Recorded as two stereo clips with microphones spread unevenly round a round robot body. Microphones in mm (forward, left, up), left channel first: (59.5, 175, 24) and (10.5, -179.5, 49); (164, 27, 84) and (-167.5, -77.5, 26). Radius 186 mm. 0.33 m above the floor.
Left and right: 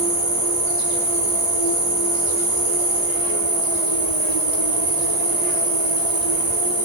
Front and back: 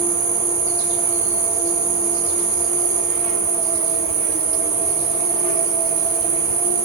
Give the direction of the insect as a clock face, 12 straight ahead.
4 o'clock.